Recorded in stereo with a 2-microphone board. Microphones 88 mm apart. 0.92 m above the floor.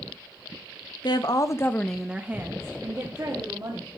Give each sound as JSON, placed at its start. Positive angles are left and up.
{"t": 1.0, "sound": "a woman speaking", "side_deg": 60, "distance_m": 0.9}